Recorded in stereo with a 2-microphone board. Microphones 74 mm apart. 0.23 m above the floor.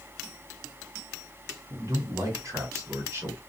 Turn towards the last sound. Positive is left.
turn(degrees=-30)  # may be behind; listen again after turning